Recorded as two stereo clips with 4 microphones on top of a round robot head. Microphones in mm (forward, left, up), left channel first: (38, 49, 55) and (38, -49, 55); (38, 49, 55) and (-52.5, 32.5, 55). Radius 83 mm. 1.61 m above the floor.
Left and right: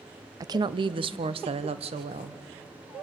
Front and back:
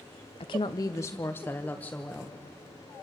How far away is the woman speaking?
About 0.6 m.